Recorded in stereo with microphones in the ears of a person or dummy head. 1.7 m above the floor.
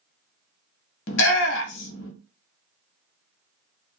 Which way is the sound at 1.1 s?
70° left (ahead or behind).